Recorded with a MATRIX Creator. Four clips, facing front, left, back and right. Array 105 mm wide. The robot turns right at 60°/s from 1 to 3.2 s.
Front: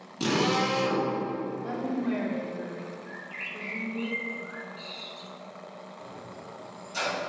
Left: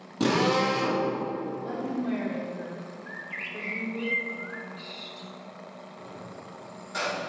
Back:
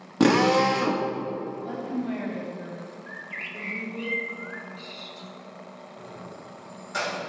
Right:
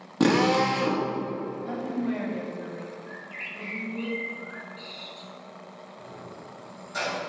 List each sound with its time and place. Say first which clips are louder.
0.2 s a drill: right 3 dB, back 7 dB; 160° right, 1.5 m
1.6 s a woman speaking: right 2 dB, front 1 dB; 5° left, 4 m; by 4.1 s 100° left, 4 m
3.1 s a bird: left 1 dB, back 1 dB; 130° left, 1.0 m; by 5.3 s 140° left, 1.0 m
6.0 s keys jangling: right 1 dB, back 1 dB; 155° left, 4 m